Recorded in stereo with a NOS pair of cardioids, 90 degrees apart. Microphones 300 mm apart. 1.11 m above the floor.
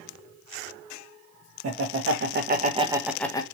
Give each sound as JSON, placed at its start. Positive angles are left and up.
{"t": 1.6, "sound": "laughter", "azimuth_deg": -55, "distance_m": 1.1}